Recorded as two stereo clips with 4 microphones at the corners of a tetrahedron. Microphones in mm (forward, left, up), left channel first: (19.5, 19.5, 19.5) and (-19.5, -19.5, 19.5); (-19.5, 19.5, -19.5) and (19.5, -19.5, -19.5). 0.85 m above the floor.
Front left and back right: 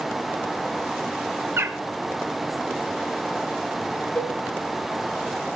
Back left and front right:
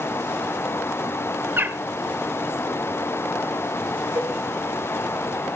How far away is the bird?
About 1.2 m.